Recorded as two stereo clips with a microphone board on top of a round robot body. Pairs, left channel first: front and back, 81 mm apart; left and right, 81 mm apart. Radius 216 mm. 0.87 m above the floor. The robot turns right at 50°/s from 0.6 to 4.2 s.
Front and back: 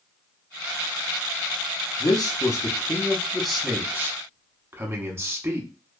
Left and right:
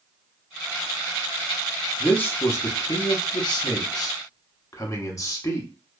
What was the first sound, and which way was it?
A man speaking, 20° left.